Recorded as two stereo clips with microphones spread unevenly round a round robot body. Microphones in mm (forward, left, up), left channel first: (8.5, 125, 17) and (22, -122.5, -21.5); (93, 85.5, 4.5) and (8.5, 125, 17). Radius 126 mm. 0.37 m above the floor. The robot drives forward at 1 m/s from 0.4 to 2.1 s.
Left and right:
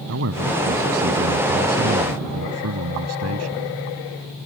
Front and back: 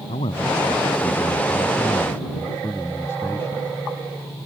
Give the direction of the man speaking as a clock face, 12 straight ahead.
2 o'clock.